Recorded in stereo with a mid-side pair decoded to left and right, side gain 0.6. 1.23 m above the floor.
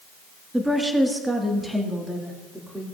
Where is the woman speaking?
5° right, 1.5 m.